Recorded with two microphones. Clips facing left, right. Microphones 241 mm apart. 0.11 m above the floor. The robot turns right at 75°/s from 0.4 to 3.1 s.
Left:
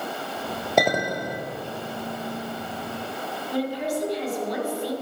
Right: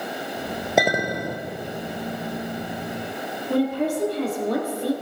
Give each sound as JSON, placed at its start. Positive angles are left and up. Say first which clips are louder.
{"t": 0.8, "sound": "a clink", "louder": "even", "azimuth_deg": -175, "distance_m": 1.6}
{"t": 3.5, "sound": "a woman speaking", "louder": "right 5 dB", "side_deg": -60, "distance_m": 3.0}